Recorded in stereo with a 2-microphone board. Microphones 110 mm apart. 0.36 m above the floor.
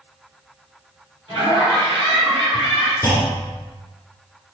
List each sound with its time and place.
1.3 s laughter: 45° right (ahead or behind), 1.9 m
3.0 s a clunk: 20° left (ahead or behind), 1.5 m